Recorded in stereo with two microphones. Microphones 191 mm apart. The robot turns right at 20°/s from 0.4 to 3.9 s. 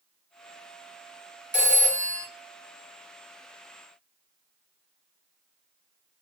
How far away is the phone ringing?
About 0.8 m.